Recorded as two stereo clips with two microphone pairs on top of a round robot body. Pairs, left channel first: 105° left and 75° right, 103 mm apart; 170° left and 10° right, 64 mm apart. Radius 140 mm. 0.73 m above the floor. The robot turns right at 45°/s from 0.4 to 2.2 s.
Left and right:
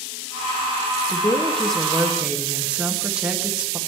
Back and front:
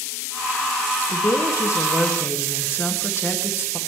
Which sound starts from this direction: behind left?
A woman speaking, at 1.1 s.